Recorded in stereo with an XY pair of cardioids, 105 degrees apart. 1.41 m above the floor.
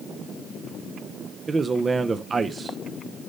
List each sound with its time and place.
1.5 s a man speaking: 30° right, 0.9 m